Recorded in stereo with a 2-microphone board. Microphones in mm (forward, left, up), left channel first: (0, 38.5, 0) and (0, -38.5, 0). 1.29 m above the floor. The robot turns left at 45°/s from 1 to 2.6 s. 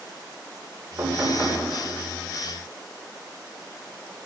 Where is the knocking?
40° right (ahead or behind), 4.5 m; by 1.6 s 15° right (ahead or behind), 4.5 m.